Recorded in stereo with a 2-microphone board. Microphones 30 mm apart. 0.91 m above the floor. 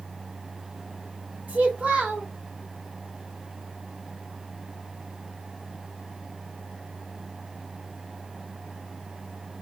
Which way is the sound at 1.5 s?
55° right (ahead or behind).